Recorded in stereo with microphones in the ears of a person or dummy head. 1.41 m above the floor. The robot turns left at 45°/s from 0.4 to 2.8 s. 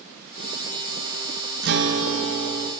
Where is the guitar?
65° right, 0.6 m; by 2.7 s 115° right, 0.6 m.